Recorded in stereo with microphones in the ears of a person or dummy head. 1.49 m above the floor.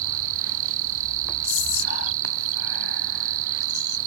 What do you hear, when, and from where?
0.0 s an insect: 80° right
1.4 s whispering: 85° left